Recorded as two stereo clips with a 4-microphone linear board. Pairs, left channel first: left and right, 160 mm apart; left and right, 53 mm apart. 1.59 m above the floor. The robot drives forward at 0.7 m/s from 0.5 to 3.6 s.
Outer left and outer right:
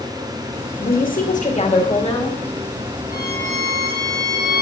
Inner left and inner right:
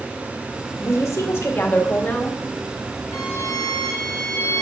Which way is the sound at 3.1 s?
60° left (ahead or behind).